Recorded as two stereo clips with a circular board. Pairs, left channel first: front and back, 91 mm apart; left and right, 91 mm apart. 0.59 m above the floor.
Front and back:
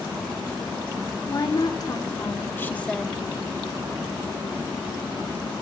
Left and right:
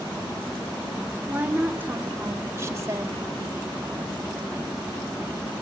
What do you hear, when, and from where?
1.3 s a woman speaking: 20° right, 2.5 m; by 3.2 s 95° right, 1.3 m